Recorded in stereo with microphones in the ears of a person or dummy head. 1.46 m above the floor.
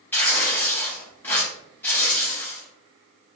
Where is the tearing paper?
10° left (ahead or behind), 1.8 m.